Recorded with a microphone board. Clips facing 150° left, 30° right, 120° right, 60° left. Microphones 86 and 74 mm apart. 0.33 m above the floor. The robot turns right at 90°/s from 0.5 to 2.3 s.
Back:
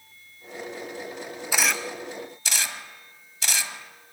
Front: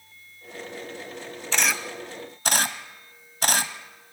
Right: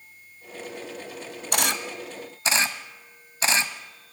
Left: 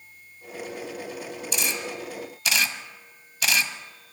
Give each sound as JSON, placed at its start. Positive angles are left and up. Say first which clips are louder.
{"t": 1.5, "sound": "a camera shutter", "louder": "even, right 4 dB", "azimuth_deg": -135, "distance_m": 1.2}